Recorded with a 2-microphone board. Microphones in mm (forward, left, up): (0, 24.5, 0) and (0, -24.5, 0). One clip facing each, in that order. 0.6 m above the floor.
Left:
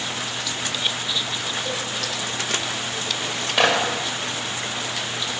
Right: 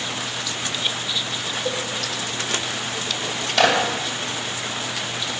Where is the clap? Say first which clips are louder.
Right 1 dB; 15° left (ahead or behind), 2.5 m.